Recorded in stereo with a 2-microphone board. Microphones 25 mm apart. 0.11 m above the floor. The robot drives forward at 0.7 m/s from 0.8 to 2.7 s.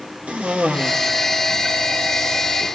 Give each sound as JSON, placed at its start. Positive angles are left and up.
{"t": 0.3, "sound": "a cough", "side_deg": -60, "distance_m": 2.5}